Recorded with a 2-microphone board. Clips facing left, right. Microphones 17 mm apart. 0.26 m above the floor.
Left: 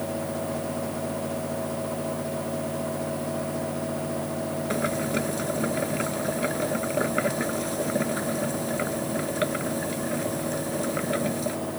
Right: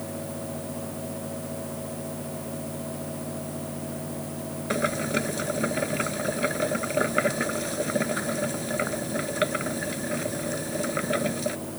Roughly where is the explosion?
I don't hear an explosion.